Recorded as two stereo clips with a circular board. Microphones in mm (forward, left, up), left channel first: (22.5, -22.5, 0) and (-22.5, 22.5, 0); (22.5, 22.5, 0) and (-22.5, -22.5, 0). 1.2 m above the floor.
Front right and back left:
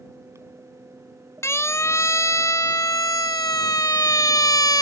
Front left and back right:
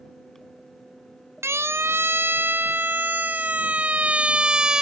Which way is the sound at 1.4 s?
90° right.